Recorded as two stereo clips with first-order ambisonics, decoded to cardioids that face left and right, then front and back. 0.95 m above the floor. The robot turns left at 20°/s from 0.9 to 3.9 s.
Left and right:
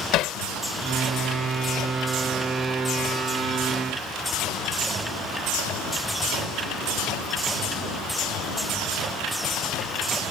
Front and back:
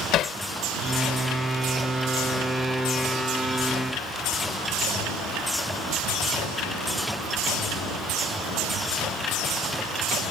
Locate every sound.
0.1 s hammering: 50° left